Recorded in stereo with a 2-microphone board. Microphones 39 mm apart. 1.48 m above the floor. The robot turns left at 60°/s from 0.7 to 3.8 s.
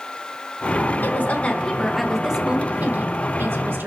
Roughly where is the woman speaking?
Ahead left.